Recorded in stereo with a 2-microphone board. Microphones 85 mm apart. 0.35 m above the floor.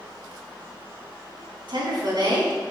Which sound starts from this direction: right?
A woman speaking, at 1.7 s.